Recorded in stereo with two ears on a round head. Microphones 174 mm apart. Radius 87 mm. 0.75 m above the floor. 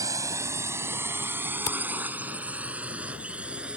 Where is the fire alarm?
I don't hear a fire alarm.